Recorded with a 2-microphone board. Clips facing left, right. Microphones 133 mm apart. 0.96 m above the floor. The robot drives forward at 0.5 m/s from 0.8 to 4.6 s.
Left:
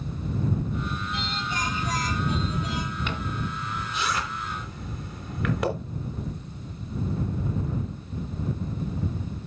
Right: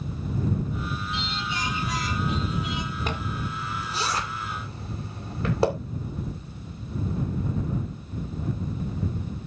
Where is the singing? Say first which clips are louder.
Even; 45° left (ahead or behind), 2.5 m; by 3.0 s 35° left (ahead or behind), 3 m.